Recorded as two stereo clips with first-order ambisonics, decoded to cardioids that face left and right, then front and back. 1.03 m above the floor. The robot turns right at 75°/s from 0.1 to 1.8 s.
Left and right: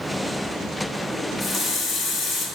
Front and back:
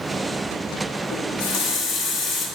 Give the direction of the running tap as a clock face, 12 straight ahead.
12 o'clock.